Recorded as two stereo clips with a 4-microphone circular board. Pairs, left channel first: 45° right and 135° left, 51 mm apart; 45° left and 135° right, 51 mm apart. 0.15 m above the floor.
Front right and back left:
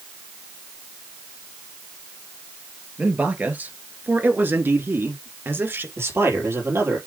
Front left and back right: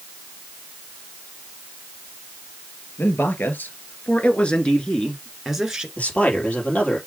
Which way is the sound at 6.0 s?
105° left.